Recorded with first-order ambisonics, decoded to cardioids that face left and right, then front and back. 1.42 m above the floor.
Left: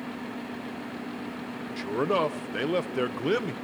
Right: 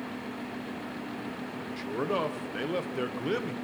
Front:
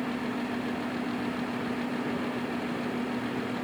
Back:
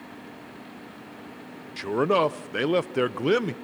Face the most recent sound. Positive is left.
turn(degrees=165)